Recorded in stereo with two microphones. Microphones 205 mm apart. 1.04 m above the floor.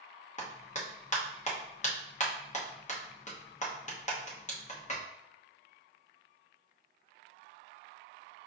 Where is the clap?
35° left (ahead or behind), 0.8 m.